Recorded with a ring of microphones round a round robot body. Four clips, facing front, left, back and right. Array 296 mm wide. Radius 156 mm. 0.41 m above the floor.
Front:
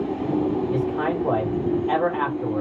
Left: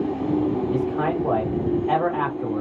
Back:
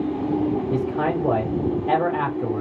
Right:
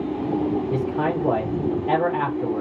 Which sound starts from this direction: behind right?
A man speaking, at 0.7 s.